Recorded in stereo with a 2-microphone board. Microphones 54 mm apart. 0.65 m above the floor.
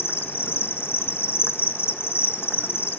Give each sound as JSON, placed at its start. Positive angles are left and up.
{"t": 0.0, "sound": "an insect", "side_deg": 45, "distance_m": 1.3}